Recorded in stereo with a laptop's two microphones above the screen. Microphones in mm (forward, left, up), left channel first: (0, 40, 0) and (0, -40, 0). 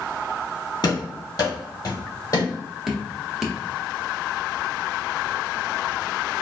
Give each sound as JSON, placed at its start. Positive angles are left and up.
{"t": 0.8, "sound": "running footsteps", "side_deg": 50, "distance_m": 1.6}
{"t": 2.9, "sound": "dripping", "side_deg": -5, "distance_m": 0.7}